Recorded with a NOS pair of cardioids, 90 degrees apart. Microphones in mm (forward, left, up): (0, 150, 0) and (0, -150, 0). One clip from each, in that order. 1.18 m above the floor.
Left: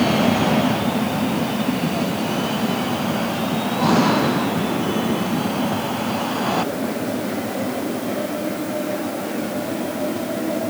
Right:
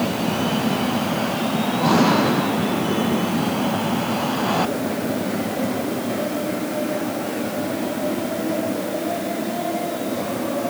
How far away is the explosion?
I don't hear an explosion.